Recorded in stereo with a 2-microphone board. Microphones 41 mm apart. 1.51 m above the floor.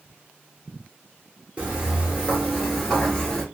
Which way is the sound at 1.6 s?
25° right (ahead or behind).